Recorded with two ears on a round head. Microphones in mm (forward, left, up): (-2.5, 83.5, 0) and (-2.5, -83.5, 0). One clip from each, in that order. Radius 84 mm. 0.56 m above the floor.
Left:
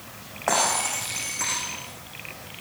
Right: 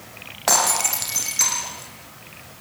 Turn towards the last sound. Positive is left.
turn(degrees=-85)